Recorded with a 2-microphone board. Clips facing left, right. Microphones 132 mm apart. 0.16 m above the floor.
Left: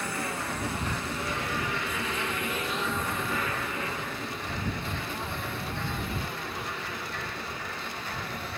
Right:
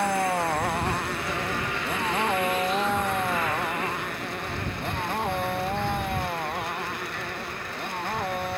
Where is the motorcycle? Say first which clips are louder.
Right 9 dB; 60° right (ahead or behind); by 8.6 s 55° right (ahead or behind).